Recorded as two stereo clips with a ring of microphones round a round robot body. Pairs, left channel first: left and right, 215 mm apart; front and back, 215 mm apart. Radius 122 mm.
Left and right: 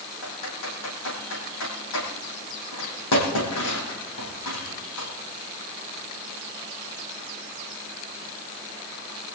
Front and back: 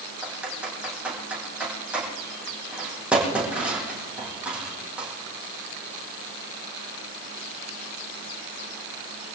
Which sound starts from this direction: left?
Typing on a keyboard, at 0.2 s.